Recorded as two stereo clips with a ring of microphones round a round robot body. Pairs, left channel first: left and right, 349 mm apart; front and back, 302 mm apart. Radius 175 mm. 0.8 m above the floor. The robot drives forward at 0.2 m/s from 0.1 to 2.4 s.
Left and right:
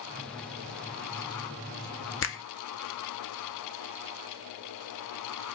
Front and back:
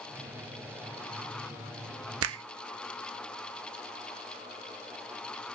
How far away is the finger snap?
About 0.5 m.